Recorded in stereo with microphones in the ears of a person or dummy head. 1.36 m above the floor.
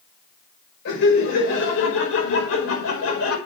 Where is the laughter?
65° left (ahead or behind), 6 m; by 3.4 s 85° left, 6 m.